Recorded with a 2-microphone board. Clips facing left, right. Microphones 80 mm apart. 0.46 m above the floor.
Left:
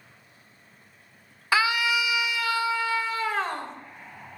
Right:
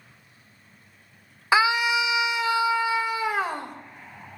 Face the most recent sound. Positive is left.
turn(degrees=-10)  # may be behind; listen again after turning